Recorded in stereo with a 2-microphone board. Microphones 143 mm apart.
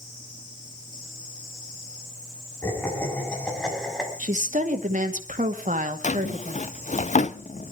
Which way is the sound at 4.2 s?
65° right (ahead or behind).